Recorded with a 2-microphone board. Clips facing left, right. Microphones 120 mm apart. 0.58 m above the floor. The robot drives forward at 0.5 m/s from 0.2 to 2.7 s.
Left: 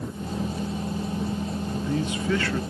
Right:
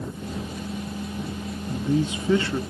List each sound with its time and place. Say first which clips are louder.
1.7 s a man speaking: right 5 dB; 25° right (ahead or behind), 0.6 m; by 2.6 s 20° right (ahead or behind), 0.7 m